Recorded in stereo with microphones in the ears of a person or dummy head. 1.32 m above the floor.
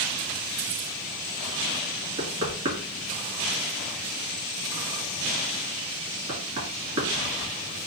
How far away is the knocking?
About 1.9 m.